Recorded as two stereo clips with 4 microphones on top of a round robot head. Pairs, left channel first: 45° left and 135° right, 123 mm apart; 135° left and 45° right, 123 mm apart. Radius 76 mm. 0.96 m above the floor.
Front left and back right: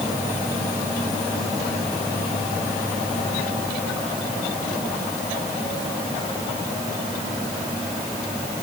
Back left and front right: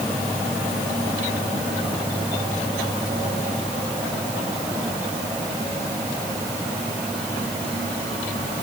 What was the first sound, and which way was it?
Only background noise.